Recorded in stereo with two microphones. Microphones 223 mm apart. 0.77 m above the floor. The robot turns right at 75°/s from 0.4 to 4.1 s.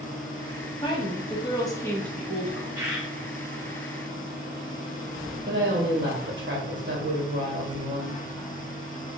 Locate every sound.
0.8 s a woman speaking: 20° left (ahead or behind), 0.8 m; by 2.6 s 10° right (ahead or behind), 0.8 m
2.8 s a bird: 15° right (ahead or behind), 1.1 m; by 3.1 s 5° left (ahead or behind), 1.1 m
5.5 s a woman speaking: 55° right (ahead or behind), 1.1 m